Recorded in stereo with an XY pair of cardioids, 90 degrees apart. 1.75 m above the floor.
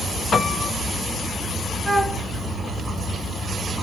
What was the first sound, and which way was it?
A piano, 55° left.